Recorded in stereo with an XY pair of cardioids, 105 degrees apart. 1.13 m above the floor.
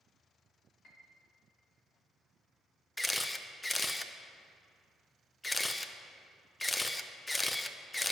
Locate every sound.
0.8 s a piano: 50° left, 1.6 m
3.0 s a camera shutter: 15° left, 0.5 m